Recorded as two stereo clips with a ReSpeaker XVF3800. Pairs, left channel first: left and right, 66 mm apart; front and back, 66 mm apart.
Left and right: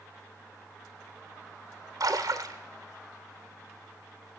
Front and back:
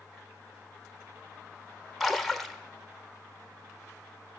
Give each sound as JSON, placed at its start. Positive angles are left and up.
{"t": 2.0, "sound": "a splash", "azimuth_deg": -90, "distance_m": 1.0}